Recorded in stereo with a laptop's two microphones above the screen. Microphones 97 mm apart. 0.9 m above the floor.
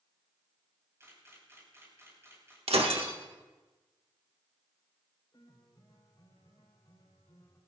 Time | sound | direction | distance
1.0 | a camera shutter | 30° right (ahead or behind) | 5.5 m
2.7 | breaking glass | 90° right | 1.4 m
5.3 | a piano | 40° left (ahead or behind) | 4.5 m